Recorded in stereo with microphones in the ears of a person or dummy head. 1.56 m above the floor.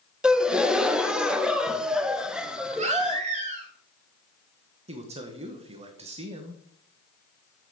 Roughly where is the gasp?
Centre.